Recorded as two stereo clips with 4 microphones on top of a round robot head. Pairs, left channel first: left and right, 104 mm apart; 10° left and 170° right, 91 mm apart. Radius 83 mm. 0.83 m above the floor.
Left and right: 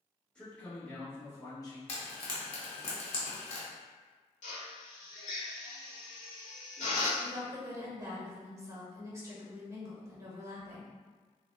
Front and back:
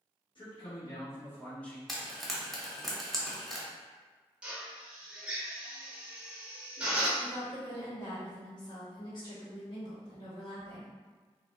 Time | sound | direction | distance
0.3 | a man speaking | 15° left | 1.2 m
1.9 | frying | 100° left | 0.9 m
4.4 | a drill | 110° left | 0.8 m
7.2 | a woman speaking | 30° right | 1.1 m